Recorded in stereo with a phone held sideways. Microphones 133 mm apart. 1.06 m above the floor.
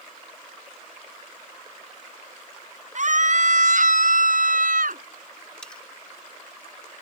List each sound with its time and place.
3.0 s a scream: 60° right (ahead or behind); by 5.0 s 75° right (ahead or behind)
5.6 s cutlery clinking: 5° left (ahead or behind)